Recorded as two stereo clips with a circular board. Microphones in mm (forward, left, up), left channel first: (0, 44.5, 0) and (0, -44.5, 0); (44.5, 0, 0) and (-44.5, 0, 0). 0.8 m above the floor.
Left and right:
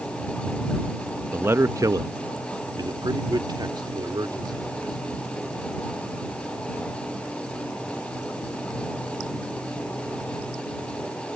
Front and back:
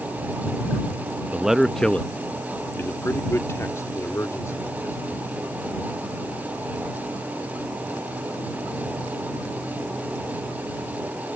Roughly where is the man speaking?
Behind right.